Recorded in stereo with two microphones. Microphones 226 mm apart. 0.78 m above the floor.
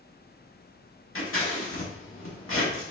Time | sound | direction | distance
1.1 | scissors | 70° left (ahead or behind) | 1.3 m